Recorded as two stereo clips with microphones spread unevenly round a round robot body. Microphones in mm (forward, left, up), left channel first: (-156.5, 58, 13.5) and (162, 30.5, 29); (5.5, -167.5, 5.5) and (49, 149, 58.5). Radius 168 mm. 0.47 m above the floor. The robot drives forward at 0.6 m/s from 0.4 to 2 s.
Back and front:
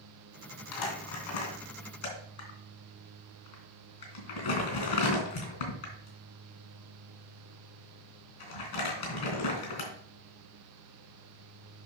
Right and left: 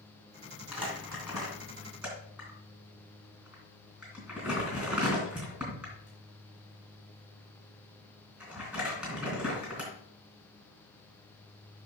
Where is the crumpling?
170° left, 2.5 m.